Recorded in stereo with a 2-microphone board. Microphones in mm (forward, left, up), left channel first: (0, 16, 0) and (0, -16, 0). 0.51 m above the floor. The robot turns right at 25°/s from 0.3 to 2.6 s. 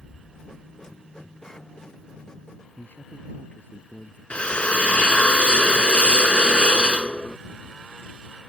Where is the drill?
40° left (ahead or behind).